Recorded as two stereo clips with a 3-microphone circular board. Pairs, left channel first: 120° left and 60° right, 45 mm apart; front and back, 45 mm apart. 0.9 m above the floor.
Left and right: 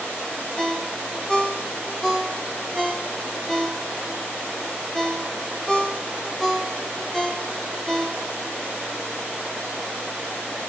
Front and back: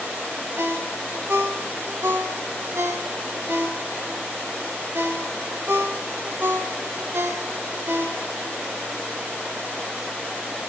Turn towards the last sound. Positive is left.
turn(degrees=-160)